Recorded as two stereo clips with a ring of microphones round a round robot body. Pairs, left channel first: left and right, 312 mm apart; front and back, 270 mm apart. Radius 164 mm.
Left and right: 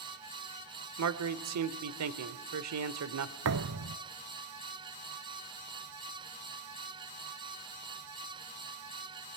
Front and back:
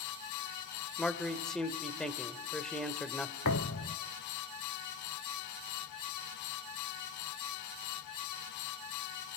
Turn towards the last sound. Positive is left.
turn(degrees=-50)